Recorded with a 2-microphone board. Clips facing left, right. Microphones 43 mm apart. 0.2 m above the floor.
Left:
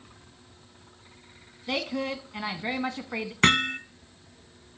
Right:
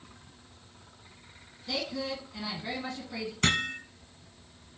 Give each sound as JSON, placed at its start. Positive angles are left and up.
{"t": 1.7, "sound": "a woman speaking", "side_deg": 45, "distance_m": 1.4}
{"t": 3.4, "sound": "hammering", "side_deg": 45, "distance_m": 0.6}